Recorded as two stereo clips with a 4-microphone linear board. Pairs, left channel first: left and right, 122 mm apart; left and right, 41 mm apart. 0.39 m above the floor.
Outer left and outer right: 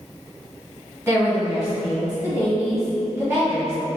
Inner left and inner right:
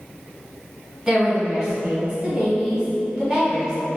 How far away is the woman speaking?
About 1.7 m.